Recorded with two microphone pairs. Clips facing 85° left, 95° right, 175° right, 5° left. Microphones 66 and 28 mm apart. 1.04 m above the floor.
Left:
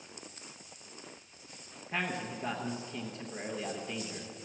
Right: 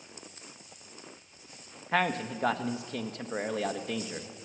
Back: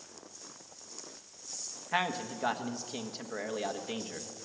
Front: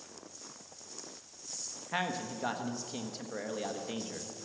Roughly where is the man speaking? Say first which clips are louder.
Right 7 dB, back 3 dB; right.